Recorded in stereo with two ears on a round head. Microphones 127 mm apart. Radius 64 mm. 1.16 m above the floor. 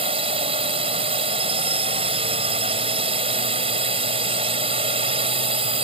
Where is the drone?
40° right (ahead or behind).